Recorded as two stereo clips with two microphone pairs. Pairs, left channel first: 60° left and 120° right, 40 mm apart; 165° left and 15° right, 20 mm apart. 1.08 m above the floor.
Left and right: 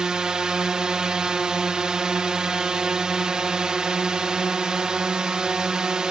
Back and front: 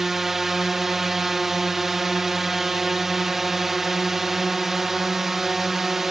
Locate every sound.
0.0 s a drone: 70° right